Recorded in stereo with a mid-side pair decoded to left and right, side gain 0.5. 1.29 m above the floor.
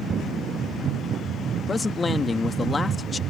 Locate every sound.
1.7 s a man speaking: 30° left